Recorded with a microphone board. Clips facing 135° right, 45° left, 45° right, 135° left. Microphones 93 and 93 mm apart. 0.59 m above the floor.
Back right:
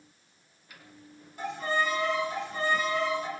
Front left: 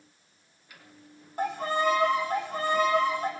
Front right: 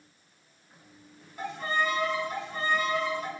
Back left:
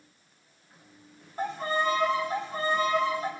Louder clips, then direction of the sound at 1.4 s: Front left 3 dB, back left 2 dB; 80° left.